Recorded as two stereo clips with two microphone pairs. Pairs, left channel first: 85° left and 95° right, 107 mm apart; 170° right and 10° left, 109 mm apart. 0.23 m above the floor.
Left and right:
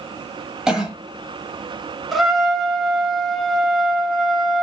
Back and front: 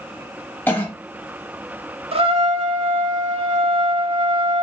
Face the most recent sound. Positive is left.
turn(degrees=-5)